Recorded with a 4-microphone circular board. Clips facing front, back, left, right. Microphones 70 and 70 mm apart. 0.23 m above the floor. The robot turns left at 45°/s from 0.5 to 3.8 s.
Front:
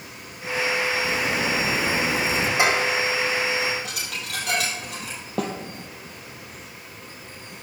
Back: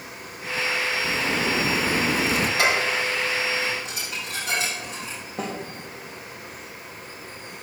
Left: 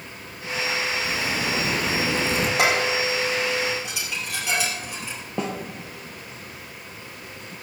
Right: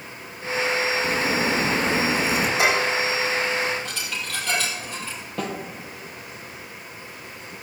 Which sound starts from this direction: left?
Dishes clattering, at 2.6 s.